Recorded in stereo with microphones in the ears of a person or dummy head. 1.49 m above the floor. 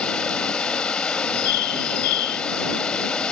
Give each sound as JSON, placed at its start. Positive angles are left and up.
{"t": 0.0, "sound": "running water", "side_deg": 5}
{"t": 1.2, "sound": "a bird", "side_deg": 55}